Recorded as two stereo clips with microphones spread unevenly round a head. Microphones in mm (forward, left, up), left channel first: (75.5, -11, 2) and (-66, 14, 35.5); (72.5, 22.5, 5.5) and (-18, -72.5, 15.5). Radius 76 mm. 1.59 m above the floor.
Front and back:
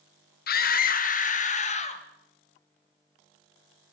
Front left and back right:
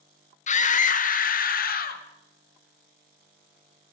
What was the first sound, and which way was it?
A scream, 15° left.